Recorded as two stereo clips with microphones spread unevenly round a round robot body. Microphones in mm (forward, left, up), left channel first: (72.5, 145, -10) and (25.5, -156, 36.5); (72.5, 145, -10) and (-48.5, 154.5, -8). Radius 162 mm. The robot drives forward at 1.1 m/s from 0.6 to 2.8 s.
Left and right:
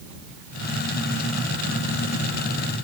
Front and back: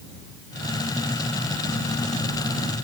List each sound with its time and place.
Only background noise.